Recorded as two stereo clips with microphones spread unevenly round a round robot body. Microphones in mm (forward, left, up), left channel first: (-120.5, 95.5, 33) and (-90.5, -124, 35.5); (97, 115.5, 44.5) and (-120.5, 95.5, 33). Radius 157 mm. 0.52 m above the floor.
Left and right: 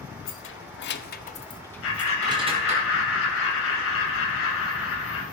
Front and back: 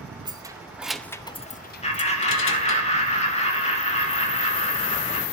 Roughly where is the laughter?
Ahead left.